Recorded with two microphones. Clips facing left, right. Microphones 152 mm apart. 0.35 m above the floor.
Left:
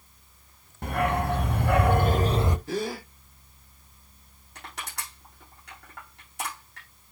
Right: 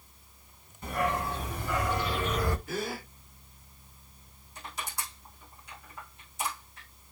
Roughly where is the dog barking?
Left.